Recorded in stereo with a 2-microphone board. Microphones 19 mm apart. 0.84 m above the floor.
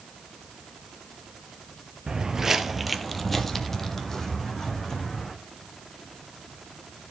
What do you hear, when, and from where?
2.1 s footsteps: 40° right (ahead or behind), 1.1 m; by 5.3 s 30° left (ahead or behind), 3.5 m